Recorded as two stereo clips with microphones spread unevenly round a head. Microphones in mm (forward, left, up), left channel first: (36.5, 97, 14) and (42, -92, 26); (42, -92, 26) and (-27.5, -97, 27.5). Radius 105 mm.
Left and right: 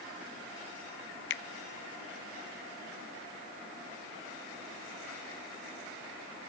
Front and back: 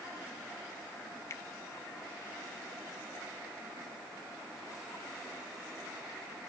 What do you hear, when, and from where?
1.3 s a finger snap: 70° left, 0.6 m